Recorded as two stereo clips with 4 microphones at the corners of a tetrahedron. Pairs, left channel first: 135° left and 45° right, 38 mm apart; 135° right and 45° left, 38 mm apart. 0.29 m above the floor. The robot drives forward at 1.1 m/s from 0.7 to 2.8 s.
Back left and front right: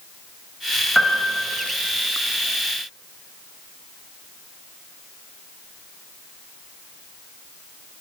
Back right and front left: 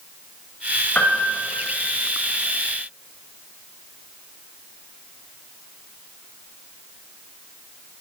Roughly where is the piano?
Behind right.